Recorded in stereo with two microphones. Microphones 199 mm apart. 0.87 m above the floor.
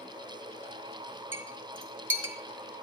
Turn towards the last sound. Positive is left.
turn(degrees=-75)  # may be behind; listen again after turning